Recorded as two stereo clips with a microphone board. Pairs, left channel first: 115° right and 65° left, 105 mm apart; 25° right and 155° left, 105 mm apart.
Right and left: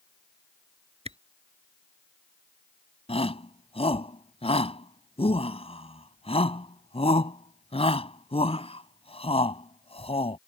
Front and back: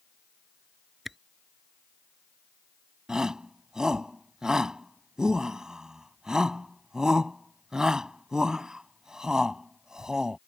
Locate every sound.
1.1 s a camera shutter: 70° left
3.1 s a shout: 120° right